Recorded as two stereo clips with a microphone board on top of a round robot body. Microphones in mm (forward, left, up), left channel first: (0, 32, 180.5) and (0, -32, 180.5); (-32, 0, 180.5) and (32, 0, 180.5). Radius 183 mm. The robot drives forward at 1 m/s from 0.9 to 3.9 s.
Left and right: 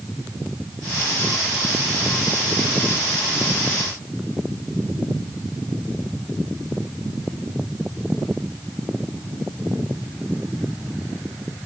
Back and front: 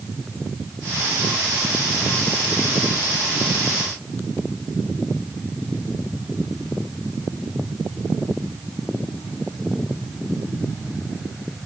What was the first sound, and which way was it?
Only background noise.